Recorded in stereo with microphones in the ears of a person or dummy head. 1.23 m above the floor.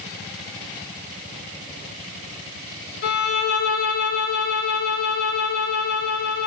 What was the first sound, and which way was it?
A violin, 55° left (ahead or behind).